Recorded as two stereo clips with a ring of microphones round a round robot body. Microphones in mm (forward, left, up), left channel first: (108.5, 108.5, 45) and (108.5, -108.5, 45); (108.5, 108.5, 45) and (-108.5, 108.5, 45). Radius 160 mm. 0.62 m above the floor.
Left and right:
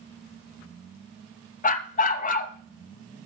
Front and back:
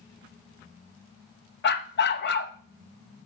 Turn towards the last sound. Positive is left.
turn(degrees=35)